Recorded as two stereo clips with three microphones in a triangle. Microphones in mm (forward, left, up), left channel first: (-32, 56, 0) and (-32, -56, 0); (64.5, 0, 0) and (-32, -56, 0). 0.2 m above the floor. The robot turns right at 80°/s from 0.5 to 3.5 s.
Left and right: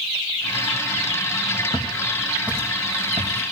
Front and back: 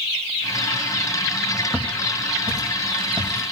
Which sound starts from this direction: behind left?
Footsteps, at 1.7 s.